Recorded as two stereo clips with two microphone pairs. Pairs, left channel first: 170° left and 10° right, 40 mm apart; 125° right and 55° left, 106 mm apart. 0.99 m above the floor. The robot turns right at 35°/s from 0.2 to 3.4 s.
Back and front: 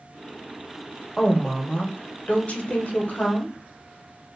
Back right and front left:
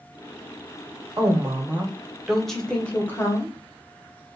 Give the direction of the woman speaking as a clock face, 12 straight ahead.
9 o'clock.